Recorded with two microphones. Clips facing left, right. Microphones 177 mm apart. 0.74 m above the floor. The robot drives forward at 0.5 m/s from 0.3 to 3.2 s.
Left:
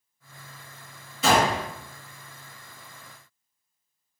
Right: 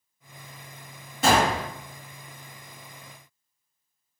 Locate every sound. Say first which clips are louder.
1.2 s a gunshot: even; 50° right (ahead or behind), 1.6 m; by 1.7 s 55° right (ahead or behind), 1.6 m